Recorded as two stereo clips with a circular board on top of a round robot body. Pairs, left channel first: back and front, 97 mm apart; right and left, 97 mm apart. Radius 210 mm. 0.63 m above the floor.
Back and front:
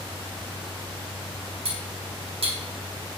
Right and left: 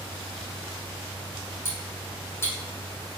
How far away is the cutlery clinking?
About 3 m.